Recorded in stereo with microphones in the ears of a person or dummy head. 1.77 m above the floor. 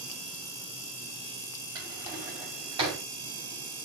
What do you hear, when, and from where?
1.8 s a drawer: 25° right (ahead or behind), 5 m